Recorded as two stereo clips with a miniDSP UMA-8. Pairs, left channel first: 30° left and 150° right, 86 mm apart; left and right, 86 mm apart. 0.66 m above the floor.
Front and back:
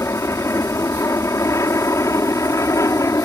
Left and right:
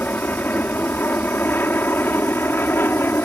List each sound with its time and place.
0.0 s an aircraft: 35° left; by 3.2 s 40° left